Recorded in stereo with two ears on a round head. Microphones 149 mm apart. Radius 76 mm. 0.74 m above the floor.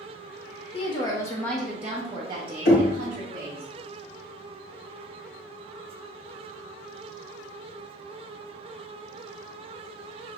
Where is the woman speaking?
35° left (ahead or behind), 0.9 m; by 3.6 s 55° right (ahead or behind), 1.4 m.